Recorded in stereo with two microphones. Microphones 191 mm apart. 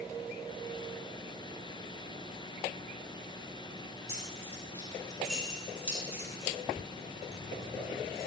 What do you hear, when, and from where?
4.1 s keys jangling: 15° left (ahead or behind), 6 m; by 8.3 s 55° right (ahead or behind), 4.5 m